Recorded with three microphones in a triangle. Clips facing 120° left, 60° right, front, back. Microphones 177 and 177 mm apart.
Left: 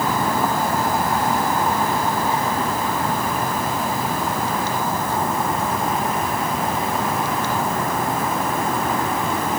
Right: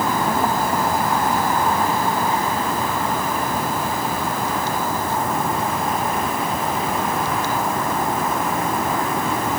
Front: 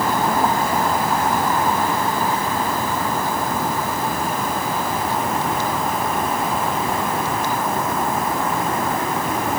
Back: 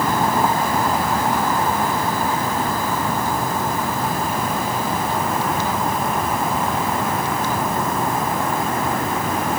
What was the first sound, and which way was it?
Only background noise.